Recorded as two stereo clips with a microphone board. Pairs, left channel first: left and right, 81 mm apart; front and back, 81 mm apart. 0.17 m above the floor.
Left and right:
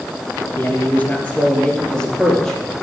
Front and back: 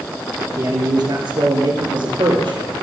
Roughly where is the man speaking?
Behind left.